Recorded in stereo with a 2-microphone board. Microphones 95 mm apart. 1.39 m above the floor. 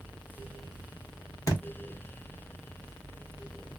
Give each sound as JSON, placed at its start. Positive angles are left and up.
{"t": 1.5, "sound": "a thud", "side_deg": 35, "distance_m": 1.0}